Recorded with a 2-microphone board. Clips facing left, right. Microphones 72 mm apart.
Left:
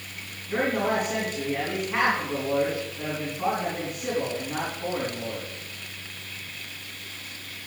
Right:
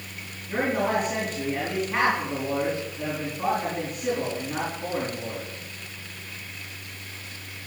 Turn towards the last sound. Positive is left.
turn(degrees=5)  # may be behind; listen again after turning